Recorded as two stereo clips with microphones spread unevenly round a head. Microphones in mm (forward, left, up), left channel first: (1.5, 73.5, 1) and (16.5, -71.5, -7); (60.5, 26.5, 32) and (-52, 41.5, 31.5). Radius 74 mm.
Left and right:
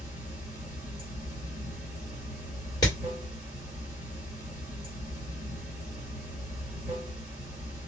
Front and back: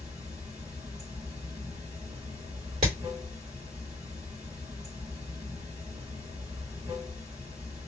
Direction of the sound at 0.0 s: 145° right.